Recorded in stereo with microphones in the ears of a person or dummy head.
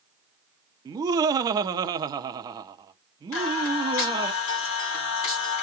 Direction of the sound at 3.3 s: 60° left (ahead or behind).